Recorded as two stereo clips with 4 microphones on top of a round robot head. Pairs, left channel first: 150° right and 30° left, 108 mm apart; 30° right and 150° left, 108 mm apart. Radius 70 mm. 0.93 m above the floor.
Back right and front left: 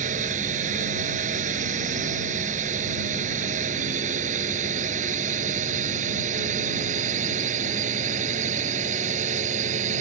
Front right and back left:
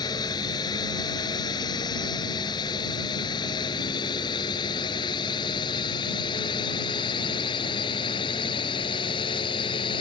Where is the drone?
25° left; by 10.0 s 15° left.